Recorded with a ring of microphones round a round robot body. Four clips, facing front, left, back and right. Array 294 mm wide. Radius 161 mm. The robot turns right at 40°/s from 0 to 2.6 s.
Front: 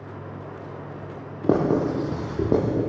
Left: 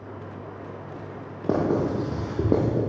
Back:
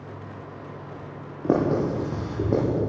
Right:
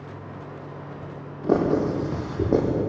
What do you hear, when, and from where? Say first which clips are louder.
1.4 s writing: right 2 dB, front 1 dB; 5° left, 9.5 m; by 2.8 s 55° left, 9.5 m